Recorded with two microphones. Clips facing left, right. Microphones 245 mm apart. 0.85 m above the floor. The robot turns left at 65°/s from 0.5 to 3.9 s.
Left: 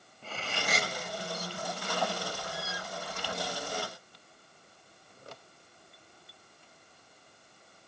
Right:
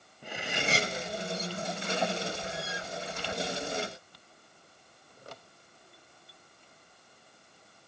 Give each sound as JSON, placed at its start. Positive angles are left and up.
{"t": 0.2, "sound": "cutlery clinking", "side_deg": -15, "distance_m": 0.8}